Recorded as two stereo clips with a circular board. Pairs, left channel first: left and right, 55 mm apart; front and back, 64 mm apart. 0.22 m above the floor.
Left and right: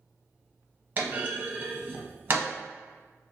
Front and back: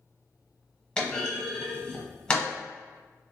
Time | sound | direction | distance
1.0 | a clunk | 65° right | 0.9 m